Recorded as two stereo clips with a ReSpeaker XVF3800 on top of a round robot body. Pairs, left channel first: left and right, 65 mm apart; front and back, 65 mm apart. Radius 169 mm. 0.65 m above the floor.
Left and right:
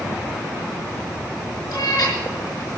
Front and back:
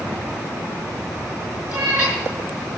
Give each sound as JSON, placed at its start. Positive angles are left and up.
{"t": 1.7, "sound": "a cat meowing", "azimuth_deg": 105, "distance_m": 5.0}